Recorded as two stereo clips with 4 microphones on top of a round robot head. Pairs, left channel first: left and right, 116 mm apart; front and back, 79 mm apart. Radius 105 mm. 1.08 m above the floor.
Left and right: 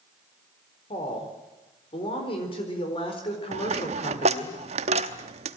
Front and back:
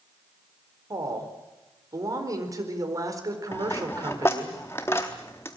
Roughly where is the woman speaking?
Behind left.